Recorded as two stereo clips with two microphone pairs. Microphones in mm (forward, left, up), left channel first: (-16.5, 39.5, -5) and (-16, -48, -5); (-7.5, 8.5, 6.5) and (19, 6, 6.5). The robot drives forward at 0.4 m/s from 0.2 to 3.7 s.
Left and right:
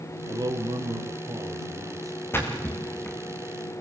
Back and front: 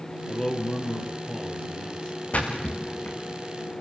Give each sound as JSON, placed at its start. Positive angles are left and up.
{"t": 0.3, "sound": "a man speaking", "azimuth_deg": -115, "distance_m": 2.0}
{"t": 2.3, "sound": "a splash", "azimuth_deg": 155, "distance_m": 7.5}